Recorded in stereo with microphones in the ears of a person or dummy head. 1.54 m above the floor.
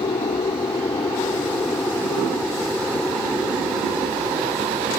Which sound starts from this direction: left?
An aircraft, at 0.0 s.